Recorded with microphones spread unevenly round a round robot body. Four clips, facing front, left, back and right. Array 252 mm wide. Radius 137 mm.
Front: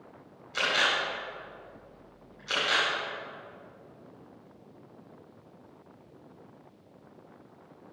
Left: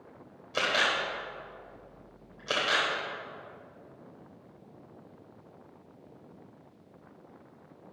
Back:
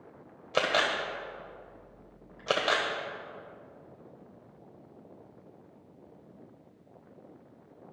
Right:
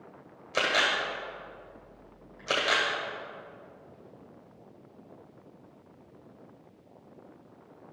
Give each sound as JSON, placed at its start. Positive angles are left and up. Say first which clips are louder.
{"t": 0.5, "sound": "a camera shutter", "louder": "right 1 dB, back 1 dB", "azimuth_deg": -175, "distance_m": 1.3}